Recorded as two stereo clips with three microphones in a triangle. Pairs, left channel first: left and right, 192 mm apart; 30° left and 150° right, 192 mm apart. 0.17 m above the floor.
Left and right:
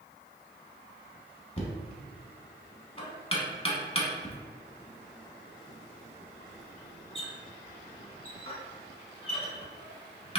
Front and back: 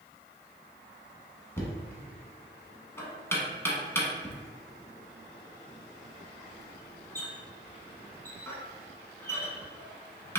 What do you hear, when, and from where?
1.6 s knocking: 95° left, 0.9 m